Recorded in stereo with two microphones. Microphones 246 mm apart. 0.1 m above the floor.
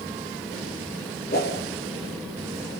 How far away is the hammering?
I don't hear hammering.